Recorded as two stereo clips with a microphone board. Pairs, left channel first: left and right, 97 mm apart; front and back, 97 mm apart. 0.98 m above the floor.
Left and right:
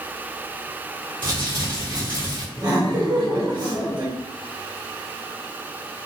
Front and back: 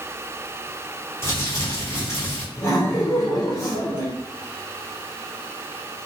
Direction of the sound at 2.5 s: 55° right.